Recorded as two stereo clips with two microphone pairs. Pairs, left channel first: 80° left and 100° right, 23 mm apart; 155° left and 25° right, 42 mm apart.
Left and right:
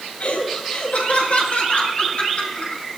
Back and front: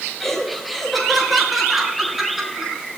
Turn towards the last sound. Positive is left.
turn(degrees=55)